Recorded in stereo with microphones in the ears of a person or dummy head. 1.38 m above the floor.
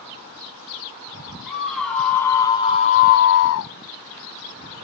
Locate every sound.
1.5 s a scream: centre (ahead or behind), 1.1 m; by 3.7 s 70° left (ahead or behind), 0.5 m